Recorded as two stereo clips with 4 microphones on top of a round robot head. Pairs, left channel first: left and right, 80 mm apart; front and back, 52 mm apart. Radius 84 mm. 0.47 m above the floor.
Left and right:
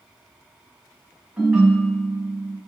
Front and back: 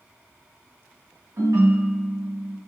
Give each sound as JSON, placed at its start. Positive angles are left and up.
{"t": 1.4, "sound": "a ringtone", "azimuth_deg": -155, "distance_m": 2.0}